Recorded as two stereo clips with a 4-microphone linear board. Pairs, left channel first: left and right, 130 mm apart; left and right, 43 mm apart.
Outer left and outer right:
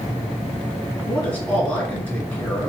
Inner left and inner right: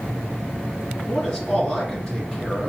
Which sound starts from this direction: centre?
A man speaking, at 1.1 s.